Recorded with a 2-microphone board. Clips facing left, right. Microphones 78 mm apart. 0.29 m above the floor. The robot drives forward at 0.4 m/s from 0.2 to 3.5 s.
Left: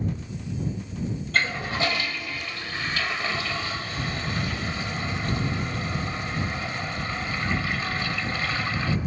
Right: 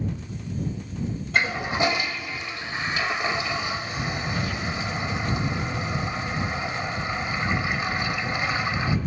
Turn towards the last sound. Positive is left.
turn(degrees=-15)  # may be behind; listen again after turning